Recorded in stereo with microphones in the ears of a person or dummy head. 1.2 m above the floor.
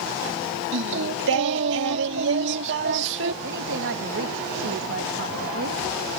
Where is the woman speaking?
60° right (ahead or behind).